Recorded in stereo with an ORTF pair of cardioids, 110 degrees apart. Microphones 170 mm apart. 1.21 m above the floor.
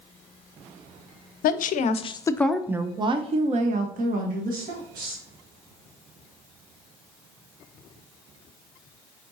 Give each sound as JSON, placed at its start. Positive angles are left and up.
{"t": 1.4, "sound": "a woman speaking", "azimuth_deg": 60, "distance_m": 0.7}